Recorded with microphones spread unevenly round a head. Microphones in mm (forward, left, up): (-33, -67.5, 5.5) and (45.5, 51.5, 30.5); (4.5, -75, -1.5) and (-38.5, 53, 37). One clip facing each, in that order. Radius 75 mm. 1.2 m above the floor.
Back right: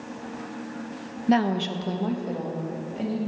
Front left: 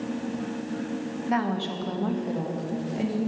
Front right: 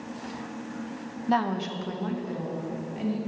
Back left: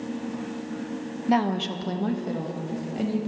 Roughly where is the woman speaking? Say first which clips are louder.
Back right 5 dB, back left 3 dB; behind.